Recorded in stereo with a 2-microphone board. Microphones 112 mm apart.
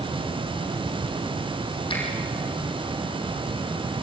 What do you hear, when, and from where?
1.9 s a finger snap: 55° left (ahead or behind), 5.5 m